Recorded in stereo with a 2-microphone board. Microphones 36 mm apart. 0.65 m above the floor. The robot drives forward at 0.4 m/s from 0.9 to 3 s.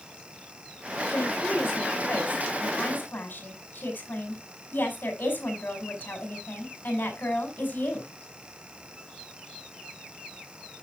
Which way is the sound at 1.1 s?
70° left (ahead or behind).